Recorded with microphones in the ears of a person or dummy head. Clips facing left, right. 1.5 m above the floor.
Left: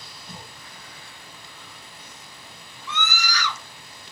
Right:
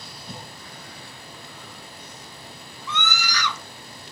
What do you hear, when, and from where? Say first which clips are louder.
0.3 s a cough: right 3 dB; 85° right, 2.5 m
2.9 s a scream: right 1 dB; 85° right, 1.8 m